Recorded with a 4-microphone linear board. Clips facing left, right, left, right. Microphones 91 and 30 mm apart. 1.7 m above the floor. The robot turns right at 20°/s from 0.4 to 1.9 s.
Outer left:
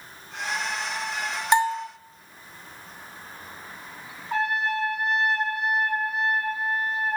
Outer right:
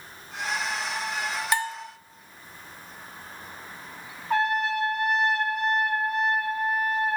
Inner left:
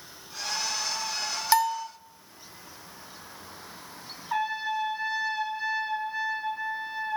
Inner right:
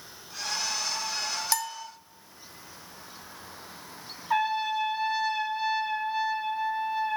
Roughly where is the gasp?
No gasp in this recording.